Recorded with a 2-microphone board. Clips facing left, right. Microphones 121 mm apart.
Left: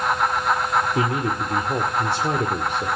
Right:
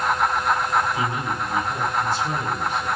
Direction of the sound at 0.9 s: 65° left (ahead or behind).